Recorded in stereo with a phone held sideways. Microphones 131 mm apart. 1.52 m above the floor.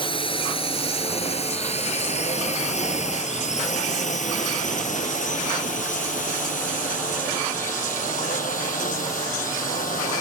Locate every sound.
0.0 s a drone: 40° left (ahead or behind); by 10.2 s 85° left